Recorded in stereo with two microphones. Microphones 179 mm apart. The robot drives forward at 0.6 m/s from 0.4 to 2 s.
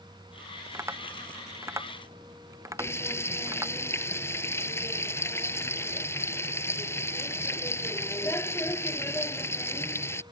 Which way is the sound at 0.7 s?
15° right (ahead or behind).